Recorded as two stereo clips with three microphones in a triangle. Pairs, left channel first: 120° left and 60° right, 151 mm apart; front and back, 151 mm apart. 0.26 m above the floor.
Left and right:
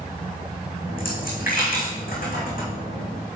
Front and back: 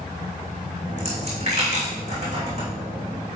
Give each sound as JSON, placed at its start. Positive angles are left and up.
{"t": 0.8, "sound": "a dropped coin", "azimuth_deg": 140, "distance_m": 3.0}